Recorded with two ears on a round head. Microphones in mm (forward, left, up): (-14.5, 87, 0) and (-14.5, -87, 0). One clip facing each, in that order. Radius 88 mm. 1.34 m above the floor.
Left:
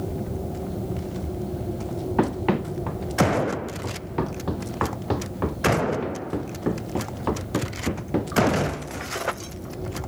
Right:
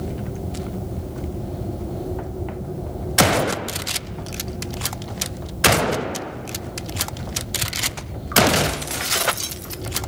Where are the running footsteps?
80° left.